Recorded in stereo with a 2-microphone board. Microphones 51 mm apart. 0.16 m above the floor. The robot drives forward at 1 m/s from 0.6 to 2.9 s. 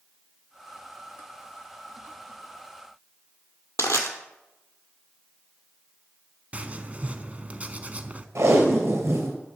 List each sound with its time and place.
3.8 s crushing: 80° left, 1.3 m
6.5 s writing: 30° right (ahead or behind), 0.5 m
8.3 s tape being pulled: 70° right (ahead or behind), 3 m